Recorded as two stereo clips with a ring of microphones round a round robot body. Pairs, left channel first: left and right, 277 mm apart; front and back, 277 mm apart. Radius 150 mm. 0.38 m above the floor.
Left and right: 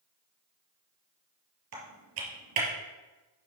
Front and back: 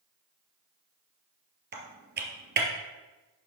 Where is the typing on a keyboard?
130° right, 2.0 m.